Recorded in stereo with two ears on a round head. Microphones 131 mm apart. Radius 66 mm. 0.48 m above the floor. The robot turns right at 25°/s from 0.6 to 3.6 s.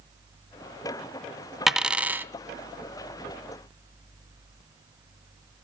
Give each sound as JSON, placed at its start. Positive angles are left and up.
{"t": 1.7, "sound": "a dropped coin", "side_deg": 0, "distance_m": 0.6}